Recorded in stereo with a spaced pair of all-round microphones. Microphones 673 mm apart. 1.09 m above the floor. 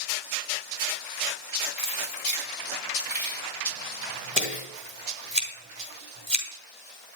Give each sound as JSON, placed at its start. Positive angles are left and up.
{"t": 1.8, "sound": "keys jangling", "side_deg": -65, "distance_m": 3.5}
{"t": 4.4, "sound": "scissors", "side_deg": -40, "distance_m": 3.5}